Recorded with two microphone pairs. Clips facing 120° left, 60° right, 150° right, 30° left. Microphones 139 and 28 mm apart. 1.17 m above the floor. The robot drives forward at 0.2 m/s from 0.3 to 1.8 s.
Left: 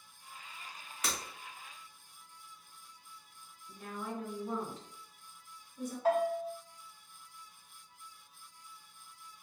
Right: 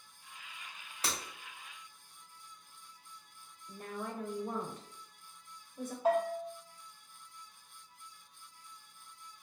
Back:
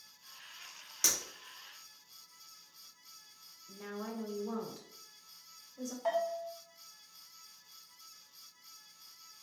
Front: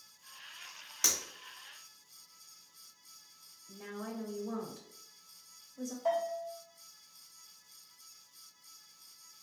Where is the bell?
130° right, 1.1 m.